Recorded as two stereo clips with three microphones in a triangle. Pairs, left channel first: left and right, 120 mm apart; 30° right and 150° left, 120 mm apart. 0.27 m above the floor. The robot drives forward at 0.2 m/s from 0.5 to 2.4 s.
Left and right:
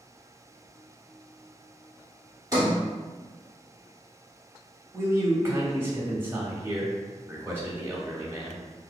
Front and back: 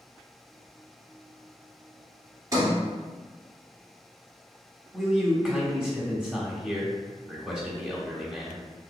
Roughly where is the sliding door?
Behind right.